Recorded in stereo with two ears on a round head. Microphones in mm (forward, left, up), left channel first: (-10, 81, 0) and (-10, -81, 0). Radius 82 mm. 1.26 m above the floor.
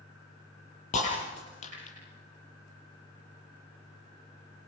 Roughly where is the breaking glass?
Left.